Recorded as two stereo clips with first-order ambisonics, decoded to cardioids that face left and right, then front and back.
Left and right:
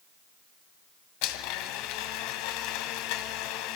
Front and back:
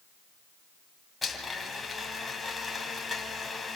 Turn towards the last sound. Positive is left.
turn(degrees=80)